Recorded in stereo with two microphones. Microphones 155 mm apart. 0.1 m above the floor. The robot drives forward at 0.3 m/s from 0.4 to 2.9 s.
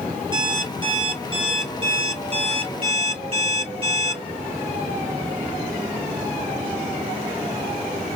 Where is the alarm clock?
30° right (ahead or behind), 1.5 m; by 4.2 s 40° right (ahead or behind), 1.1 m.